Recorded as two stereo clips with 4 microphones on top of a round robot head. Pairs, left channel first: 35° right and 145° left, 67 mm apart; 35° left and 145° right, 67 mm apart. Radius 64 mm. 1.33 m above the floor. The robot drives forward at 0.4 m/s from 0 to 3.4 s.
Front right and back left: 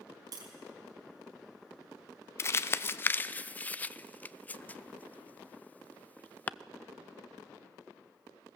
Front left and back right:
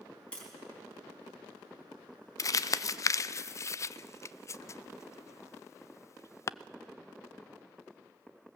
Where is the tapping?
110° left, 4 m.